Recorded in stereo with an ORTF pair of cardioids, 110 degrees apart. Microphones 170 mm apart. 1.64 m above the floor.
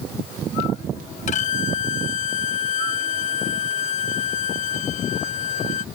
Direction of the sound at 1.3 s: 50° left.